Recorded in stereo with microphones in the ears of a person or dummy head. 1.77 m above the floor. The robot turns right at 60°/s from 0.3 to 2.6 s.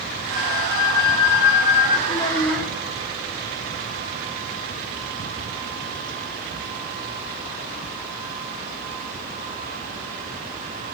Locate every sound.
0.3 s a flute: 40° left, 9 m; by 2.0 s 140° left, 9 m
2.1 s a child speaking: 145° left, 4.5 m; by 2.7 s straight behind, 4.5 m